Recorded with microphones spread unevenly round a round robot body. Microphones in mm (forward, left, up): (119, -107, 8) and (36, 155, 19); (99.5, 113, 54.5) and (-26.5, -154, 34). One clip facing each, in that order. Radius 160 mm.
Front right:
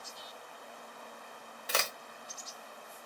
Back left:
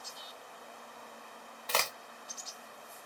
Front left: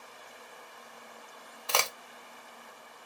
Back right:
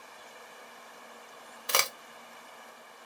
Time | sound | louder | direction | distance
1.7 | a crack | even, even | 125° right | 0.5 m